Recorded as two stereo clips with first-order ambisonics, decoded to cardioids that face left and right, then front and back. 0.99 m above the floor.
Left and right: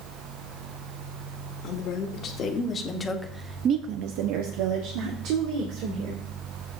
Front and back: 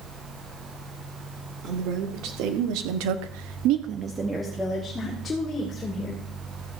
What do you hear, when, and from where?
1.6 s a woman speaking: 140° left, 2.5 m; by 6.2 s 65° right, 3 m